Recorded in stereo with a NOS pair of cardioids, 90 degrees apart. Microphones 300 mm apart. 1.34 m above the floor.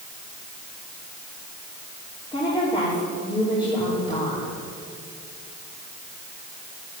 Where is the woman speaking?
15° left, 4.5 m.